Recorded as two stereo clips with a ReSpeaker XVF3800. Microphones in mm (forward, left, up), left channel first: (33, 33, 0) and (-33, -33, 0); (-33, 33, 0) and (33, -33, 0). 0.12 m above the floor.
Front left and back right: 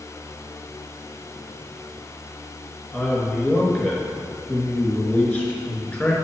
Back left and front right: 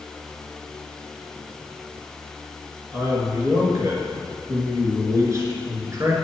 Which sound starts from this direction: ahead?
A man speaking, at 2.9 s.